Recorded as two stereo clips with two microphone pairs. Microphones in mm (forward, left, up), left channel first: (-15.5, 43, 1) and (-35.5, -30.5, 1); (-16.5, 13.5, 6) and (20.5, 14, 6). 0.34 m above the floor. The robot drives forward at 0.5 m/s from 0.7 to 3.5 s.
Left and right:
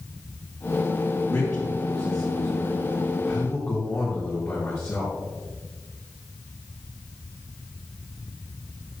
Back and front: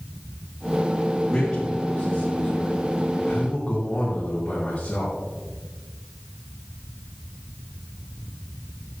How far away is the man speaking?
About 3.5 m.